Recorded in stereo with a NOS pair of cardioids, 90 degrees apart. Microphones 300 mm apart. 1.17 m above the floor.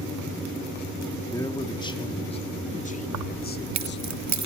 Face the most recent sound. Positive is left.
turn(degrees=-65)